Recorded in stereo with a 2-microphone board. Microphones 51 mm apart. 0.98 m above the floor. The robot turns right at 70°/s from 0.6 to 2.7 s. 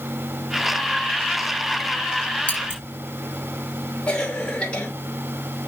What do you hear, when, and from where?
2.5 s scissors: 30° left (ahead or behind), 5.5 m; by 2.8 s 45° left (ahead or behind), 5.5 m
4.1 s a cough: 20° left (ahead or behind), 3 m